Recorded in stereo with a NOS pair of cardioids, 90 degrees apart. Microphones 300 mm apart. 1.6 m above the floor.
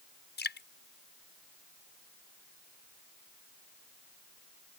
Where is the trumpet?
No trumpet in this recording.